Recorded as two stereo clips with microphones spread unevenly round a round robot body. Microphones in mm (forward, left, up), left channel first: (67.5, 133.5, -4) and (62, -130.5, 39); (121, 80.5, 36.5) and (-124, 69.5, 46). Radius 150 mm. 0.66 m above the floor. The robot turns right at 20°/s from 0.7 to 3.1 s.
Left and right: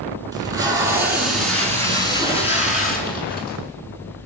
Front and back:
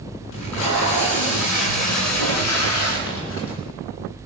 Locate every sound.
0.3 s tape being pulled: 15° right, 8 m; by 3.6 s 35° left, 8 m